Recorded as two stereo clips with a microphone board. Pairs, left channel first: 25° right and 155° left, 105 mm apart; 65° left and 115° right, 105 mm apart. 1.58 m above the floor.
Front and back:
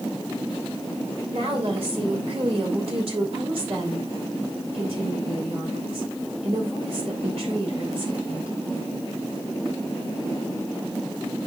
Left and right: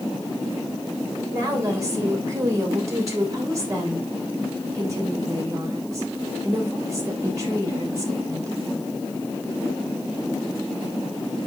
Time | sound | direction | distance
1.3 | a woman speaking | 175° right | 2.5 m